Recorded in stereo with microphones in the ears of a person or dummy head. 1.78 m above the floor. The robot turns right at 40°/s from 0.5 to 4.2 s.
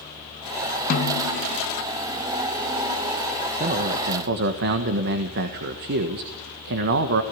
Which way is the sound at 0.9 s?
45° left (ahead or behind).